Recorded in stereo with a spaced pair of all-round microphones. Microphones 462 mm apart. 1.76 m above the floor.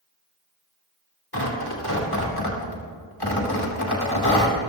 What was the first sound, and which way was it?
Tearing paper, 50° left (ahead or behind).